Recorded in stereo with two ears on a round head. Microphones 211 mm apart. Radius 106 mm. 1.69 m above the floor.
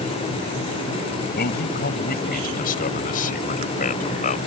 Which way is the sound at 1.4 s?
40° left (ahead or behind).